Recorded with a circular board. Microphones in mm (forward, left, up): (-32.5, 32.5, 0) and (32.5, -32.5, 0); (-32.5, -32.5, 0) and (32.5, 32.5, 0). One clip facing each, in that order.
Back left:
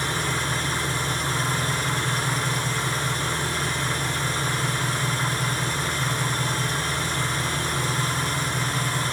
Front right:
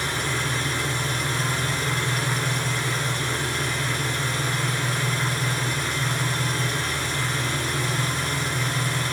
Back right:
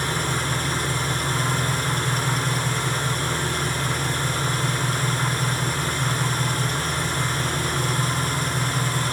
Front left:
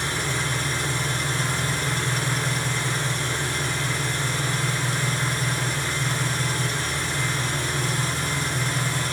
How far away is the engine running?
About 1.3 m.